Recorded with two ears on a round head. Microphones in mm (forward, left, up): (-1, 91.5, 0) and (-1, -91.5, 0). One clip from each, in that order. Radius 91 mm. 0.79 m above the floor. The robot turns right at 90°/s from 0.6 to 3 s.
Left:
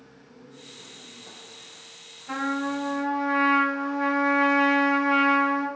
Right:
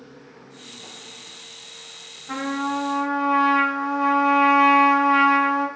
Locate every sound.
2.3 s a trumpet: 65° left, 0.9 m; by 5.7 s 130° left, 0.9 m